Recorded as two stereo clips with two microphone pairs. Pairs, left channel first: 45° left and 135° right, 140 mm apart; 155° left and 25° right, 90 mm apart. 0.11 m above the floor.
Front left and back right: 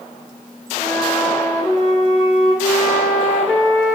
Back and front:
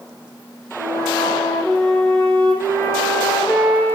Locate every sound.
0.8 s a flute: 150° left, 1.3 m